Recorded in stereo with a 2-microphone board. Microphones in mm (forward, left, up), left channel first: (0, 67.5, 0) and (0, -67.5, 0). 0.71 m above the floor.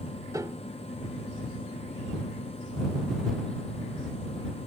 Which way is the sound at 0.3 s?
25° right (ahead or behind).